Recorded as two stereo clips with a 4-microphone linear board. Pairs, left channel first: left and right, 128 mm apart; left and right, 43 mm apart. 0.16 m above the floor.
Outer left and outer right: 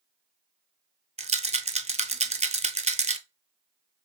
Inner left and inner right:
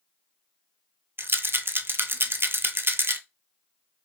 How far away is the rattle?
About 0.5 m.